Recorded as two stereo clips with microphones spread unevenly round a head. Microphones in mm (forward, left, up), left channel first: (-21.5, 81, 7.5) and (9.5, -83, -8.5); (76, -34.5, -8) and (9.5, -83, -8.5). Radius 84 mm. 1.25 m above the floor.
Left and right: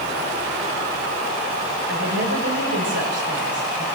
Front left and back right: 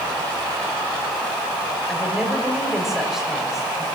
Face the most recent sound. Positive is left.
turn(degrees=-60)